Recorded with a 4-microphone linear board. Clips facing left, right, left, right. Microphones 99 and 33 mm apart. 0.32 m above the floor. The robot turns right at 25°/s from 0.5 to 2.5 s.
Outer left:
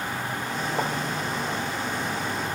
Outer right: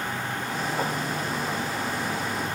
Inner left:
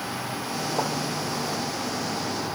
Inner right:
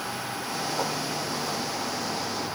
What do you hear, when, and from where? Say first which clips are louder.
0.8 s writing: outer left 1 dB, inner left 3 dB; 30° left (ahead or behind), 7.5 m; by 0.9 s 35° left (ahead or behind), 7.5 m